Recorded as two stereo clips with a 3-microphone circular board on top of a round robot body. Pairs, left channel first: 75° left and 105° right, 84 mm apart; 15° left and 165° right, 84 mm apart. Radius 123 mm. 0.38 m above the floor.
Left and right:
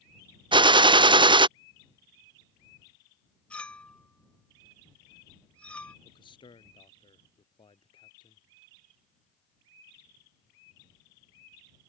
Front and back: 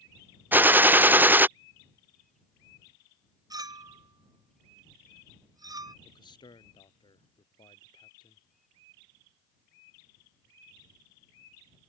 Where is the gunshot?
100° right.